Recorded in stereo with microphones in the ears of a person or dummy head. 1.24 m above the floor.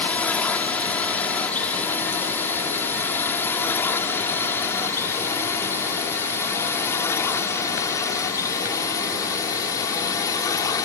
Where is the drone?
10° left (ahead or behind); by 10.8 s 20° left (ahead or behind).